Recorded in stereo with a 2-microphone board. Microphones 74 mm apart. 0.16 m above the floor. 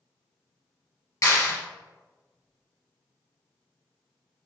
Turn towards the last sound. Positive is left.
turn(degrees=50)  # may be behind; listen again after turning